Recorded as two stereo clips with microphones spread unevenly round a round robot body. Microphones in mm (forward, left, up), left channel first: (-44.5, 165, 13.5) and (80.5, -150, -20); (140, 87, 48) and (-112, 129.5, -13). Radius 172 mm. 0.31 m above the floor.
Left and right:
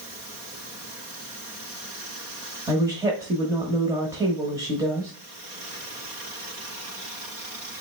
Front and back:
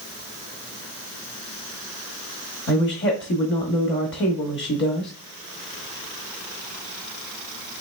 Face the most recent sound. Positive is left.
turn(degrees=-10)